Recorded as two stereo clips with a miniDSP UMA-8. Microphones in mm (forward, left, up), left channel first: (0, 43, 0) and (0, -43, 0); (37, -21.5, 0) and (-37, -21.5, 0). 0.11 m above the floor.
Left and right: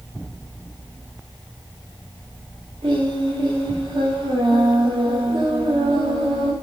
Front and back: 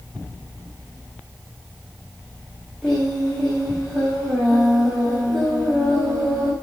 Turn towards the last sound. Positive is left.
turn(degrees=-85)